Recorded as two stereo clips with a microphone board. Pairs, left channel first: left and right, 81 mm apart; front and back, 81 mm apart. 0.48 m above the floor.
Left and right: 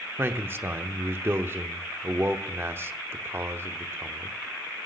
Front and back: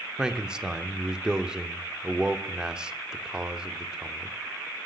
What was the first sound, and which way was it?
A man speaking, 105° right.